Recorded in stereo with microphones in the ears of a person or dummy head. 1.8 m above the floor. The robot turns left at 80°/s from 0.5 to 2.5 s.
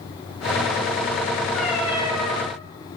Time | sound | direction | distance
1.5 | a cat meowing | 15° left | 5.5 m